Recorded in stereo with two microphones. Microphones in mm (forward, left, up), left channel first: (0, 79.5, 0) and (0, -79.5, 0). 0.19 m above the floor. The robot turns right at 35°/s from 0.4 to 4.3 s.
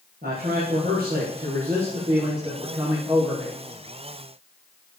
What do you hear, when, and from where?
0.2 s a man speaking: 105° right, 5 m; by 3.6 s 5° left, 5 m